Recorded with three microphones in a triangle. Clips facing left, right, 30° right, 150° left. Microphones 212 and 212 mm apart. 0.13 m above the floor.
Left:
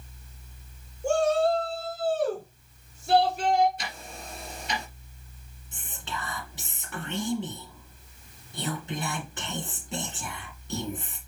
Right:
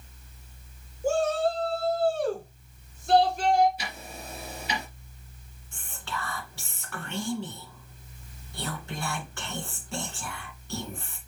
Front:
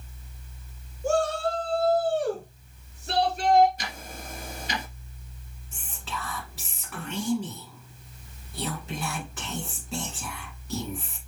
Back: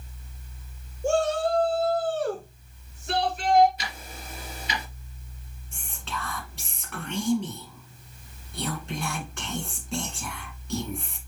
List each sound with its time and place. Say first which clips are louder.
1.0 s a shout: left 2 dB, back 2 dB; 175° right, 1.5 m; by 3.7 s 10° left, 2.5 m
3.8 s ticking: even, front 1 dB; 5° right, 2.5 m
5.7 s whispering: right 1 dB, back 1 dB; 50° left, 1.7 m